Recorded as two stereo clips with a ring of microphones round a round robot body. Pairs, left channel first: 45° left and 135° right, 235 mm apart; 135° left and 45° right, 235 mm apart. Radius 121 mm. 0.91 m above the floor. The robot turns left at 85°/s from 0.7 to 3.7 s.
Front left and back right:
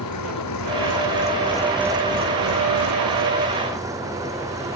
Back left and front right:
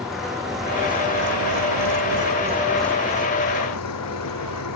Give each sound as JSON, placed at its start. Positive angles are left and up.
{"t": 0.0, "sound": "an engine running", "azimuth_deg": 45}